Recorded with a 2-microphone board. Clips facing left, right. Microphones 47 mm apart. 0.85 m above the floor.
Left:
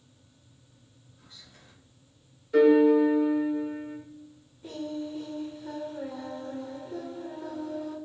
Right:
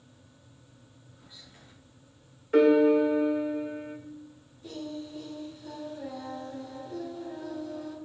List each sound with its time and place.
1.2 s whispering: 15° right (ahead or behind), 1.8 m
2.5 s a piano: 45° right (ahead or behind), 1.0 m
4.6 s singing: 25° left (ahead or behind), 1.3 m